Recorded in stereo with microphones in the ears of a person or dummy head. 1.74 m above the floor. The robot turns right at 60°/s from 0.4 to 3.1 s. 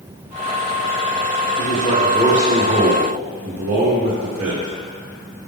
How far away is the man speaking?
About 0.8 m.